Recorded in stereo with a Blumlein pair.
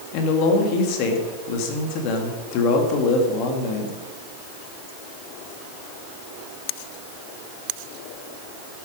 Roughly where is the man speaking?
Ahead left.